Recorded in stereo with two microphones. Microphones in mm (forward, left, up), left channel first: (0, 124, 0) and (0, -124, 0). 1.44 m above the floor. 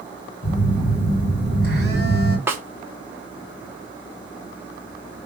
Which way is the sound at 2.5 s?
10° right (ahead or behind).